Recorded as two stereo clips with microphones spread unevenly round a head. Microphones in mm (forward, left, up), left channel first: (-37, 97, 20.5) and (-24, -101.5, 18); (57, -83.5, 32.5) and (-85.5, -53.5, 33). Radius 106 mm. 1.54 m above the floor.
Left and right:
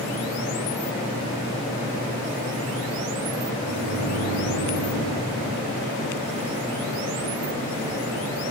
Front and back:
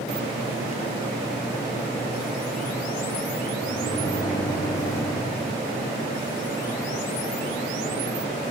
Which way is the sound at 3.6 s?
80° right.